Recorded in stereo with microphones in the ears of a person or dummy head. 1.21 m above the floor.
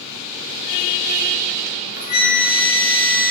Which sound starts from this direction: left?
A flute, at 1.7 s.